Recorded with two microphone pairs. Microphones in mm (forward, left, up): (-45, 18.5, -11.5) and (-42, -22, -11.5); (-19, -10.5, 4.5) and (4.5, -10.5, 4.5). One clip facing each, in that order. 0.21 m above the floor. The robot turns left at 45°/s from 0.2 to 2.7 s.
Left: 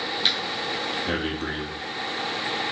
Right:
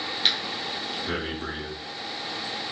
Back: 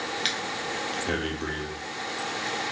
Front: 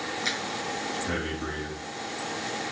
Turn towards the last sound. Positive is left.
turn(degrees=75)